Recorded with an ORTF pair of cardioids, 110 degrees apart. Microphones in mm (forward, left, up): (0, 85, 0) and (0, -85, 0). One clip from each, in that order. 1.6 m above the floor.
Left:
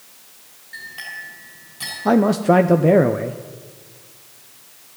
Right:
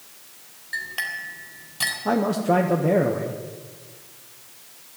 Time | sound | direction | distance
0.7 | a clink | 50° right | 4.5 m
2.0 | a man speaking | 30° left | 0.7 m